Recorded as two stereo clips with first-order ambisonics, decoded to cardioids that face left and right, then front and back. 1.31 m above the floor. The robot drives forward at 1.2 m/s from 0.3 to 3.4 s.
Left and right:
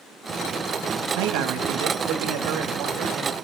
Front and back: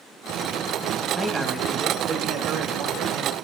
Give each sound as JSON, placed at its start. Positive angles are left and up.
{"t": 1.2, "sound": "a man speaking", "azimuth_deg": -85, "distance_m": 2.0}